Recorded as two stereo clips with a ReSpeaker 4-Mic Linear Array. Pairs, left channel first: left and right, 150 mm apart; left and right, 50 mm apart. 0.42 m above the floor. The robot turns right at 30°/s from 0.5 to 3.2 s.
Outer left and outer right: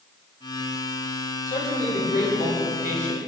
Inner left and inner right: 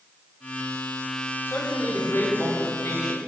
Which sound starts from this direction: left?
A man speaking, at 1.5 s.